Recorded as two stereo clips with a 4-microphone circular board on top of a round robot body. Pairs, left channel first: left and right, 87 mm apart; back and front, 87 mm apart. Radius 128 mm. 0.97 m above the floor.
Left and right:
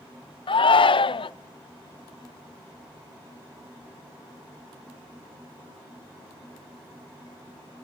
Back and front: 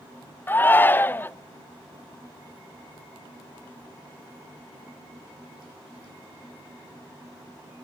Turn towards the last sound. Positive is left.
turn(degrees=115)